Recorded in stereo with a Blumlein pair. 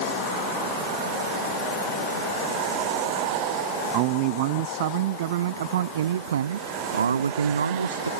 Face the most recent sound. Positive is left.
turn(degrees=-80)